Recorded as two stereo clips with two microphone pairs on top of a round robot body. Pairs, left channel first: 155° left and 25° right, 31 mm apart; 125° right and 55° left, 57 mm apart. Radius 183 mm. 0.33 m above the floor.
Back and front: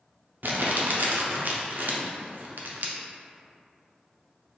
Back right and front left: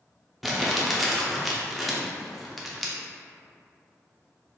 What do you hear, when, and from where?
0.4 s crumpling: 40° right, 0.6 m